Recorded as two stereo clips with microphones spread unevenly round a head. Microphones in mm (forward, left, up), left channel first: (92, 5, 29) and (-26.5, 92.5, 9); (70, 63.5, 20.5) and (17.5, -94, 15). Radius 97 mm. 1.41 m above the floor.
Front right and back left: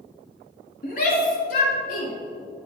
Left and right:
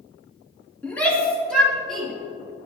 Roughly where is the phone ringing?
No phone ringing in this recording.